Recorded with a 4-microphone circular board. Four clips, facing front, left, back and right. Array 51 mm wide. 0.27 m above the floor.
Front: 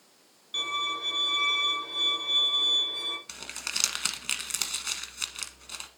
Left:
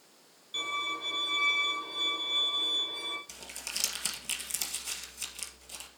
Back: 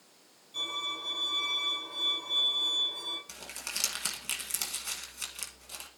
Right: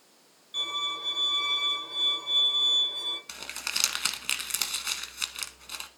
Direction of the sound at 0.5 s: Straight ahead.